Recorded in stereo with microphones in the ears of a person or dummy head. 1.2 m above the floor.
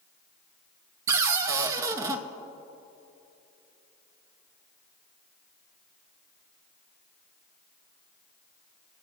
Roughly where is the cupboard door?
Right.